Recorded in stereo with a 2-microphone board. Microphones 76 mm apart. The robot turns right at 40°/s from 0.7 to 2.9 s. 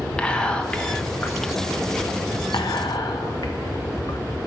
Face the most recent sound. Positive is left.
turn(degrees=70)  # may be behind; listen again after turning